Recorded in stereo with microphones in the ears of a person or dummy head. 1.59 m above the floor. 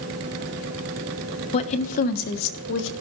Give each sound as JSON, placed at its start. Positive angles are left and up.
{"t": 1.5, "sound": "a woman speaking", "side_deg": 35, "distance_m": 1.2}